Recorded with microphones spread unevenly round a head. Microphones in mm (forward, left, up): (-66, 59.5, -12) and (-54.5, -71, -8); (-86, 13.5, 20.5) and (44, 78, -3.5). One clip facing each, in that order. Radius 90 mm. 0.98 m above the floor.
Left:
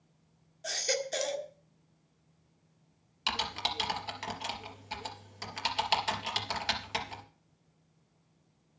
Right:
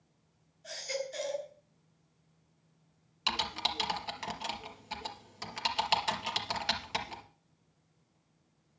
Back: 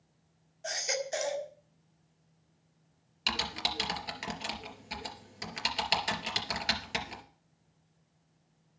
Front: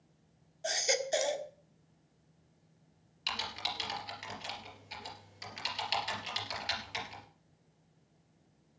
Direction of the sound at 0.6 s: 85° left.